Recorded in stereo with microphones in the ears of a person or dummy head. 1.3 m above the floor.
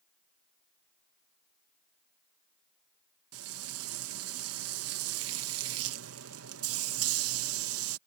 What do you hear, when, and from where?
3.3 s frying: 80° right